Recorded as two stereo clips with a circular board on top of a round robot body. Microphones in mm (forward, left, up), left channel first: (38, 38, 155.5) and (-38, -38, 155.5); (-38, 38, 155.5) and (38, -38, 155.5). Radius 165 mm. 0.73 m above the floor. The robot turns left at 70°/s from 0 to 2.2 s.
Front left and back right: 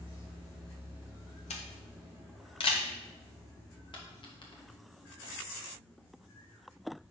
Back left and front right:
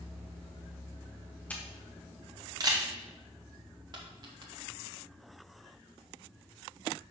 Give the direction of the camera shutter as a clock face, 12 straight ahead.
10 o'clock.